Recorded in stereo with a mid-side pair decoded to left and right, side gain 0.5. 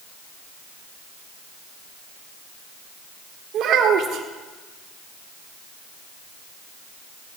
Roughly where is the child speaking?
Ahead right.